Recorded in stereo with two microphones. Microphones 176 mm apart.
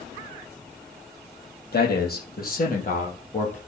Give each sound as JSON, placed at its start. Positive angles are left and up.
{"t": 1.7, "sound": "a man speaking", "side_deg": 65, "distance_m": 3.0}